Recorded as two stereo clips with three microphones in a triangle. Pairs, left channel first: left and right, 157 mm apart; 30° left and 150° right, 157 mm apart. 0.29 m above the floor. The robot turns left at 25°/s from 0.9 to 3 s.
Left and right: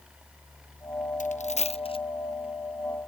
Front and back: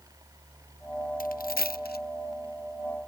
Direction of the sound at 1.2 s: 55° left.